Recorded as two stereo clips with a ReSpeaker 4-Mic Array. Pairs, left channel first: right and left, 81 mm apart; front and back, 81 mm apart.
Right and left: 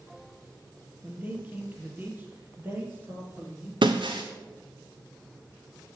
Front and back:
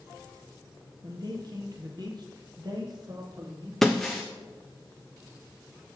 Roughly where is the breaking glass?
Left.